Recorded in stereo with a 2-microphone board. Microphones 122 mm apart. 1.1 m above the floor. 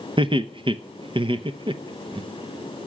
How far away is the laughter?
About 0.9 m.